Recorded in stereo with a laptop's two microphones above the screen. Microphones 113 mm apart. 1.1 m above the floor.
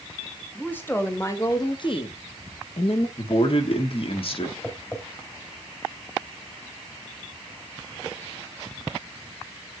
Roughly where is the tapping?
Left.